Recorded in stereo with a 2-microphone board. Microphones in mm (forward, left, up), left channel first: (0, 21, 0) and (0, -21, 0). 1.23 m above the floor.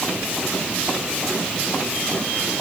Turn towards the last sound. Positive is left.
No sound to turn to.